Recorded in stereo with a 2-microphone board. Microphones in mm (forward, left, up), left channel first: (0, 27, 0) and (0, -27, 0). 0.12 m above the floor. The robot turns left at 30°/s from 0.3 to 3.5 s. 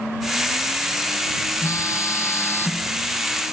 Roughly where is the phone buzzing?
Left.